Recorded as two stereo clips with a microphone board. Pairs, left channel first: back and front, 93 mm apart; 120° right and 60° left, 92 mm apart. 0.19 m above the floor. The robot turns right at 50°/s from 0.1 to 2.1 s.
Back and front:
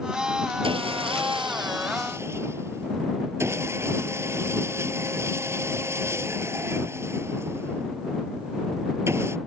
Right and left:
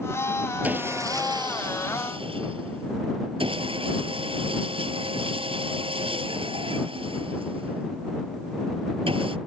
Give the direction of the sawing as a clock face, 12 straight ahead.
12 o'clock.